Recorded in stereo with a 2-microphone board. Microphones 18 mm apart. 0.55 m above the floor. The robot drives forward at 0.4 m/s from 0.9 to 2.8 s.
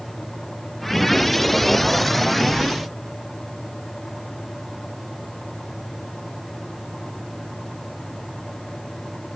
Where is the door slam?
No door slam in this recording.